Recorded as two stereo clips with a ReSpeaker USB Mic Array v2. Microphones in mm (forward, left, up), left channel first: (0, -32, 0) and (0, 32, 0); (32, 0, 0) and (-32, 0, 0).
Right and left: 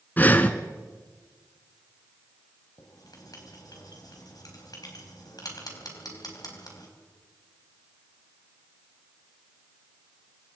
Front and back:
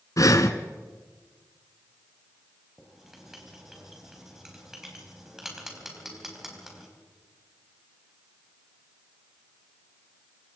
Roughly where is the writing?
Right.